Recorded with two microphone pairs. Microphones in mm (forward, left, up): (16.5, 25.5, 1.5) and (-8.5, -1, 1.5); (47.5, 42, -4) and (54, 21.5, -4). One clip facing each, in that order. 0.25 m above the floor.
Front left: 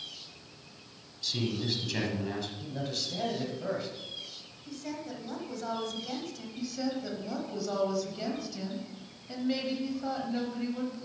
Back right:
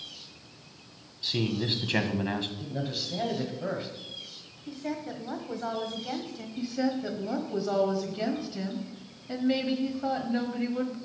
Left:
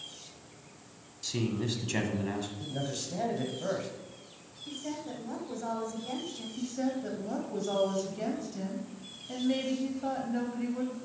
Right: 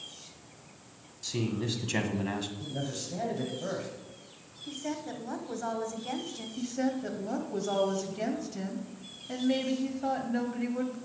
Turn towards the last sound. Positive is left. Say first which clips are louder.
# back right 5 dB, right 2 dB
turn(degrees=-120)